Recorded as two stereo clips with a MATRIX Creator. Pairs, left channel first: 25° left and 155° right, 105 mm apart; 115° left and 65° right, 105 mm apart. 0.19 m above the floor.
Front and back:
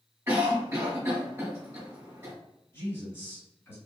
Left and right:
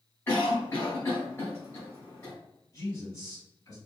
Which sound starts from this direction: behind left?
A cough, at 0.3 s.